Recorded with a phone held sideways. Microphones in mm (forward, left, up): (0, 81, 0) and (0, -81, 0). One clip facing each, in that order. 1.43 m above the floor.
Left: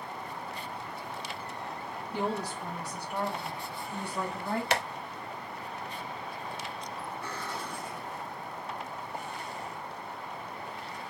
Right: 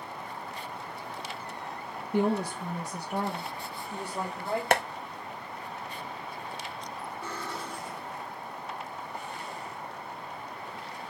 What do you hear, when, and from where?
2.1 s a woman speaking: 55° right (ahead or behind), 0.6 m; by 4.6 s 30° right (ahead or behind), 2.5 m
4.7 s tapping: 55° right (ahead or behind), 0.5 m
7.2 s cutlery clinking: 20° right (ahead or behind), 2 m